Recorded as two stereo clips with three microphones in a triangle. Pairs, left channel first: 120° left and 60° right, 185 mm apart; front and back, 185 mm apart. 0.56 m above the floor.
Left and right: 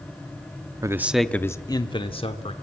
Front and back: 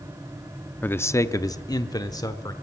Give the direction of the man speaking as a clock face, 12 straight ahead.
2 o'clock.